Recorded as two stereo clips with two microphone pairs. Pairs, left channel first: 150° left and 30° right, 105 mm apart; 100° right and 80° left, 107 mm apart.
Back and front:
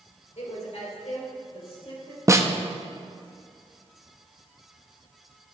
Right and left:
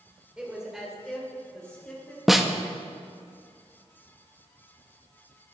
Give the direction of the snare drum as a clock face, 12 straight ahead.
12 o'clock.